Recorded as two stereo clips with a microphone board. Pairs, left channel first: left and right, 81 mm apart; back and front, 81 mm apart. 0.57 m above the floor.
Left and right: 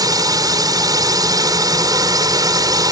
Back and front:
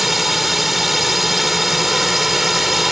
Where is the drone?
90° right.